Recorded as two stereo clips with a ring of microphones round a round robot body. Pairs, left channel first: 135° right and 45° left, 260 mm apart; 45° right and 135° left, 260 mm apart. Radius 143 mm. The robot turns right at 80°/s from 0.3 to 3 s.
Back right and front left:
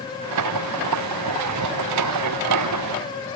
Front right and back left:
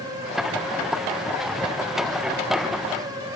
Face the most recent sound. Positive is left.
No sound to turn to.